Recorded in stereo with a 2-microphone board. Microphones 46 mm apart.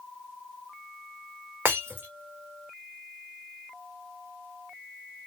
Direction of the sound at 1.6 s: 50° right (ahead or behind).